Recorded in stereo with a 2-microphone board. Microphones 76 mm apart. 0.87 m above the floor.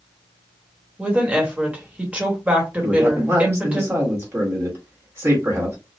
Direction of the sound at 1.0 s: 20° right (ahead or behind).